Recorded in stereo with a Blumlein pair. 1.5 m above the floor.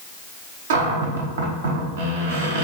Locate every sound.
0.7 s a cupboard door: 60° right, 0.8 m